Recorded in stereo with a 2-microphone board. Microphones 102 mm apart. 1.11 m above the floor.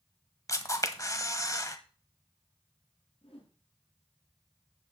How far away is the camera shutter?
About 1.1 m.